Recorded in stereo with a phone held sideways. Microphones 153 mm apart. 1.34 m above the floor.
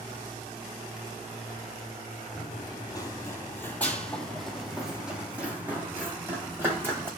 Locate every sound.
2.4 s running footsteps: 30° left (ahead or behind), 1.5 m; by 7.1 s 15° right (ahead or behind), 3.5 m